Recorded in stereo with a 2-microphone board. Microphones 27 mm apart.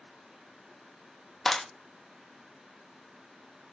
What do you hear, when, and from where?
1.4 s a clap: 15° left (ahead or behind), 0.5 m